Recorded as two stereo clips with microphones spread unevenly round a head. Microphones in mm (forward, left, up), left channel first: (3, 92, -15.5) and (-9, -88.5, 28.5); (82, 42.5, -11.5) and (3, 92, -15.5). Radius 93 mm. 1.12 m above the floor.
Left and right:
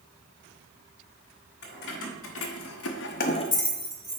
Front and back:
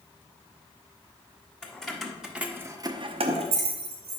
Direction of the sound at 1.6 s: 50° left.